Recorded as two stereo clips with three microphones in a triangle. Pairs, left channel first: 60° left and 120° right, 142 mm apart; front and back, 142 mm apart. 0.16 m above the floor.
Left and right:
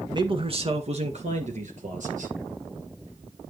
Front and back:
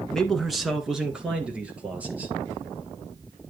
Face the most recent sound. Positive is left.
turn(degrees=-100)